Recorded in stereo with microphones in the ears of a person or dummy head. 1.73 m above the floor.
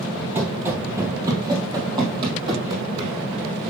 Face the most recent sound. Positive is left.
turn(degrees=-25)  # may be behind; listen again after turning